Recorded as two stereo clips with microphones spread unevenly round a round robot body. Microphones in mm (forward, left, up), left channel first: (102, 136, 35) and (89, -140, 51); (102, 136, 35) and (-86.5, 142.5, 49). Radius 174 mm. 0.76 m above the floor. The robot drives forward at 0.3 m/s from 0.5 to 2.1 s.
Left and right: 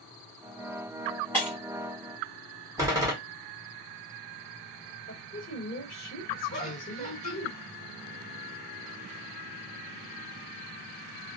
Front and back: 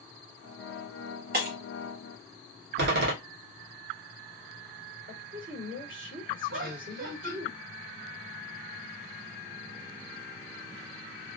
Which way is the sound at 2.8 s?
175° right.